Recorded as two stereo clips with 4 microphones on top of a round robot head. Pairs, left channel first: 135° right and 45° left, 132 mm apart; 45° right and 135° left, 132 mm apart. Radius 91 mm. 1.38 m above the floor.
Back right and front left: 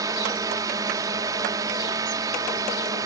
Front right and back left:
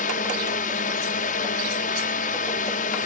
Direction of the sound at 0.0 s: 20° right.